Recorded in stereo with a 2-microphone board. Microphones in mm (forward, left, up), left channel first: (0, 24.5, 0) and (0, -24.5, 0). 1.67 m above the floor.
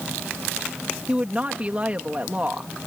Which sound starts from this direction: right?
A woman speaking, at 1.1 s.